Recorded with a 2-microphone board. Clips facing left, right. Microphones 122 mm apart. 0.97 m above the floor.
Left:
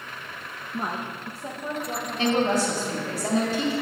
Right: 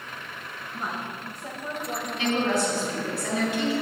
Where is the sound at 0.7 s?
55° left (ahead or behind), 0.9 m; by 3.2 s 25° right (ahead or behind), 1.7 m.